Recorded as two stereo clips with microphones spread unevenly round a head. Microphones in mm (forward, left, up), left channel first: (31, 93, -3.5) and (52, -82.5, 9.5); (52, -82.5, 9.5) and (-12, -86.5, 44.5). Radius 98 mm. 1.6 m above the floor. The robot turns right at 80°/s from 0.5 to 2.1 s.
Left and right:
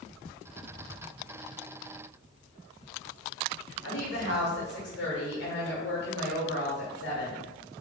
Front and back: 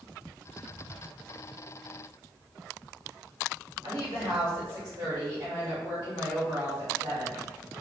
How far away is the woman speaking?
About 1.2 m.